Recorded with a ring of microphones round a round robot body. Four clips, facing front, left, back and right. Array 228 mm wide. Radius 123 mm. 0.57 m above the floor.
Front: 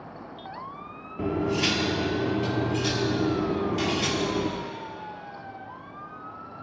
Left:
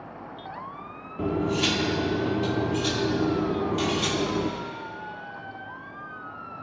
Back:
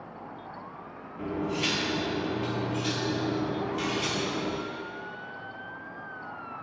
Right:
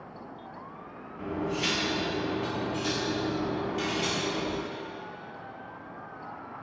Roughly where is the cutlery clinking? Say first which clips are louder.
Left 6 dB, front 5 dB; ahead left.